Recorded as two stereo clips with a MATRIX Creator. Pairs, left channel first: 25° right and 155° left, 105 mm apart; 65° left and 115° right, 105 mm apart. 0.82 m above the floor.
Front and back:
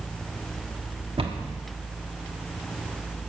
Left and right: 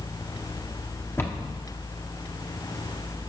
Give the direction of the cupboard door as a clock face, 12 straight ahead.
8 o'clock.